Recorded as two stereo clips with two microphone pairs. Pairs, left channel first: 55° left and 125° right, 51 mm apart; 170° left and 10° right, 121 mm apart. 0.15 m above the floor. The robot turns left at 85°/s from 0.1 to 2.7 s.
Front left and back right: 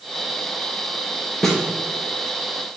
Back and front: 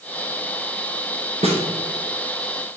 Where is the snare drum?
25° right, 1.4 m; by 1.6 s 40° right, 1.4 m.